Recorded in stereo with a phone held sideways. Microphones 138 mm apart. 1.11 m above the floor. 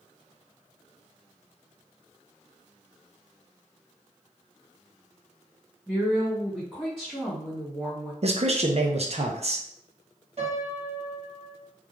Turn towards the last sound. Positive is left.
turn(degrees=-45)  # may be behind; listen again after turning